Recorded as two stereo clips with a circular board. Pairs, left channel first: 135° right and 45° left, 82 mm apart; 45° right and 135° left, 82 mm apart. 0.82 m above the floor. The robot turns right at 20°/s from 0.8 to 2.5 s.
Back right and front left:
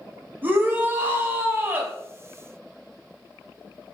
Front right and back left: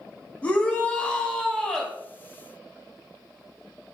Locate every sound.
0.4 s a shout: 10° left, 0.6 m; by 1.9 s 35° left, 0.6 m